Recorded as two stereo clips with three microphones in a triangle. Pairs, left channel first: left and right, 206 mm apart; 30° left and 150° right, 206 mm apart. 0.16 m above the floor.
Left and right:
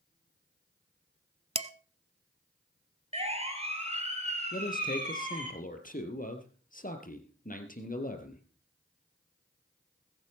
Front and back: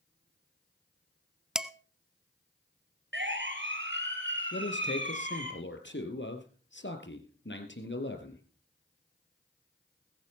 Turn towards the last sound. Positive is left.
turn(degrees=45)